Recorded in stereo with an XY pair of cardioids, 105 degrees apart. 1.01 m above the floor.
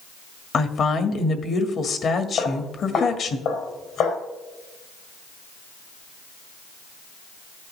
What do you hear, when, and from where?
0.5 s a woman speaking: 50° left, 1.7 m
2.4 s footsteps: 70° left, 3.5 m